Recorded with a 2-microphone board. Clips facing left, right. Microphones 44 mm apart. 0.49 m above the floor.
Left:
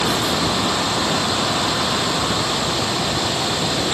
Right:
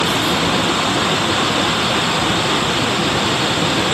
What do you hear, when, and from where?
0.0 s running water: 45° right (ahead or behind)